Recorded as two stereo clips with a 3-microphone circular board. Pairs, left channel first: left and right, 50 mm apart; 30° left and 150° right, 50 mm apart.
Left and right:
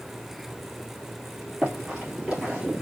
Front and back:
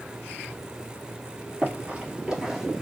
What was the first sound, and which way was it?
Running footsteps, 135° right.